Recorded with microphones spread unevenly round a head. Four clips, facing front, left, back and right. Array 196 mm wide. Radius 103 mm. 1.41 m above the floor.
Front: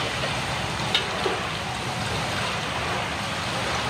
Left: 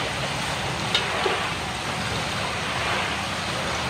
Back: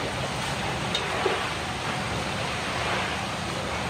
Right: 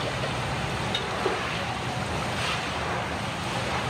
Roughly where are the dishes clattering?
Ahead left.